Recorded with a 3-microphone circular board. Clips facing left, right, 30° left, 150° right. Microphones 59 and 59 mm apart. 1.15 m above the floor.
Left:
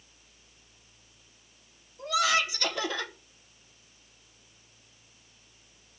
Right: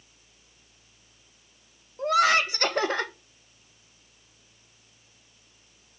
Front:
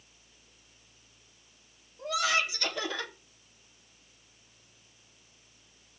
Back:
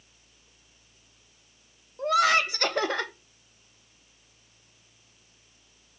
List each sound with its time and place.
2.0 s laughter: 125° right, 1.6 m